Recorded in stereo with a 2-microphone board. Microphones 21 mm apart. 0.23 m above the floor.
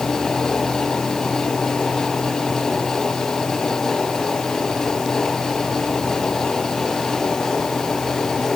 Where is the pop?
No pop in this recording.